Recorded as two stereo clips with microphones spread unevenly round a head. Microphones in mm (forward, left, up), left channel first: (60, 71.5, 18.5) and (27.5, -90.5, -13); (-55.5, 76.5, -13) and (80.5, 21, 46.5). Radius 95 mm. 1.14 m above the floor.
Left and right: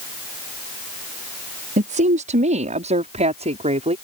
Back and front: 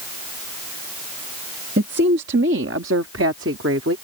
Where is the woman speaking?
60° right; by 4.0 s 50° right.